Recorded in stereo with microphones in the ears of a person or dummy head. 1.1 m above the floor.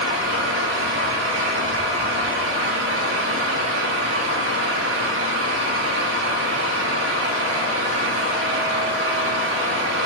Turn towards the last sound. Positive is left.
turn(degrees=-65)  # may be behind; listen again after turning